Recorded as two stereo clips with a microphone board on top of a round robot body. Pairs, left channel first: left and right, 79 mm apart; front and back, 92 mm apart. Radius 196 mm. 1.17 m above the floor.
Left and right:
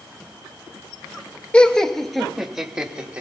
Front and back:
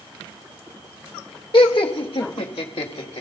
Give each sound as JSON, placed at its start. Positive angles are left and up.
{"t": 1.5, "sound": "laughter", "azimuth_deg": 20, "distance_m": 0.9}